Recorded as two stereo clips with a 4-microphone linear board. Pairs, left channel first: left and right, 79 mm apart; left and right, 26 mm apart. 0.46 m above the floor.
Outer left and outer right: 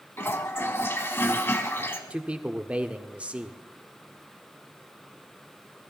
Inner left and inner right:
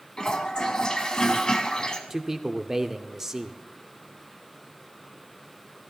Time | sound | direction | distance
0.2 | a toilet flushing | 30° left (ahead or behind) | 1.3 m
2.1 | a man speaking | 15° right (ahead or behind) | 0.8 m